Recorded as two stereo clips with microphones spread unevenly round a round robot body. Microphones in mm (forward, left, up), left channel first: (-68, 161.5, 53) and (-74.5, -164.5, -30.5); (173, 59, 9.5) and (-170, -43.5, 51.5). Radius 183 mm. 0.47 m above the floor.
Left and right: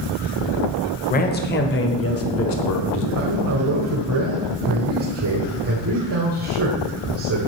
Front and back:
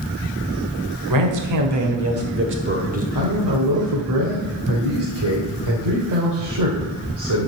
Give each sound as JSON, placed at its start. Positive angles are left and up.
{"t": 1.1, "sound": "a man speaking", "azimuth_deg": 160, "distance_m": 1.9}
{"t": 3.1, "sound": "a man speaking", "azimuth_deg": -125, "distance_m": 1.8}